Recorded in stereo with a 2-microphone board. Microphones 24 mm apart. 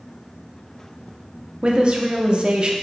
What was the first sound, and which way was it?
A woman speaking, 35° right (ahead or behind).